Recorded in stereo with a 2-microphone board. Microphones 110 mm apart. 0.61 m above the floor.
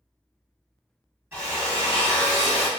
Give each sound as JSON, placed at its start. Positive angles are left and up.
{"t": 1.3, "sound": "a drill", "side_deg": -20, "distance_m": 1.9}